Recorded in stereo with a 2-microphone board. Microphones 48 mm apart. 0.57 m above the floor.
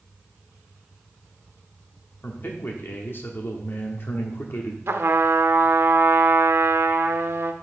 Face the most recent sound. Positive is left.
turn(degrees=-60)  # may be behind; listen again after turning